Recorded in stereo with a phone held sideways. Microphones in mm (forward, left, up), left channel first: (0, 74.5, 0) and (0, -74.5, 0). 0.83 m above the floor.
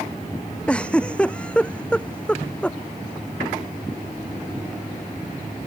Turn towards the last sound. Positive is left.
turn(degrees=5)  # may be behind; listen again after turning